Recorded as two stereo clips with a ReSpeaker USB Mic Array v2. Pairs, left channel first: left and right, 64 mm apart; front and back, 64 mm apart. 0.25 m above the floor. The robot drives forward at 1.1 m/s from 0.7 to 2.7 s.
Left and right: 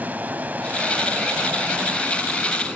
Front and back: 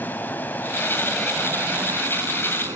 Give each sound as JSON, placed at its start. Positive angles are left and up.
{"t": 0.0, "sound": "running water", "azimuth_deg": -40, "distance_m": 1.1}